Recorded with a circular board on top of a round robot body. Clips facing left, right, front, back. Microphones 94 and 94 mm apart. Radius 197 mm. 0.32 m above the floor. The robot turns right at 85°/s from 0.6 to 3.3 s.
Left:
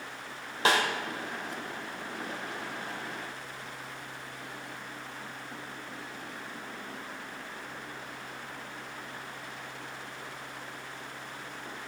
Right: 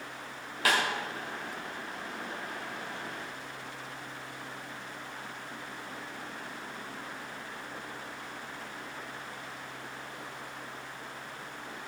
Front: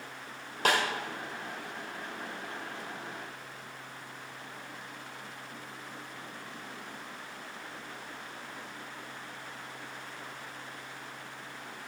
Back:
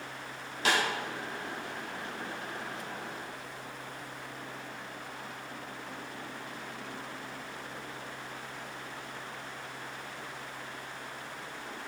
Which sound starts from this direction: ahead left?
A snare drum, at 0.7 s.